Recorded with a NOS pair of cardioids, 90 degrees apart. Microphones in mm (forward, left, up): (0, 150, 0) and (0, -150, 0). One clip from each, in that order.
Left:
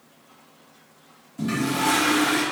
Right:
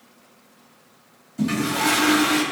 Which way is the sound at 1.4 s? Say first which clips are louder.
Right 2 dB; 25° right.